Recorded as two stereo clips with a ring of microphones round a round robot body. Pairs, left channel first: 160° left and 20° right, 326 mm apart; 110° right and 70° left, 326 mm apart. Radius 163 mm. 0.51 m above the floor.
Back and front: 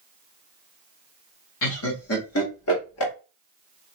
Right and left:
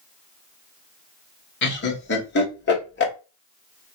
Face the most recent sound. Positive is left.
turn(degrees=-165)